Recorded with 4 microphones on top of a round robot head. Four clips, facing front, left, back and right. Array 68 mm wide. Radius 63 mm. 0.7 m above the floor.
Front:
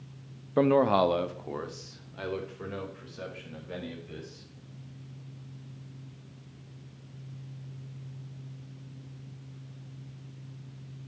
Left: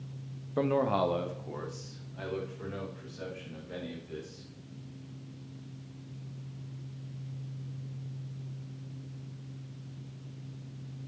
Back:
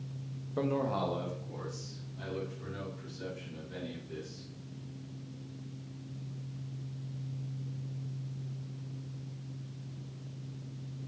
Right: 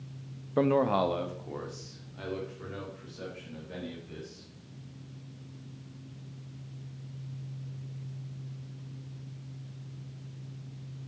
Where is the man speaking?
20° right, 0.6 m; by 4.4 s 5° left, 4.5 m.